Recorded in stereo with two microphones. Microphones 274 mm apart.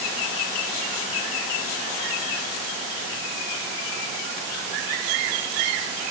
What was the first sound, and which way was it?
Only background noise.